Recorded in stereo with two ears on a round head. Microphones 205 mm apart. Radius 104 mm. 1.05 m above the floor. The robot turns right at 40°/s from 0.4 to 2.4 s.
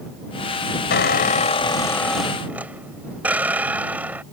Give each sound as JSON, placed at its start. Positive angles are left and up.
{"t": 0.9, "sound": "a squeak", "azimuth_deg": 125}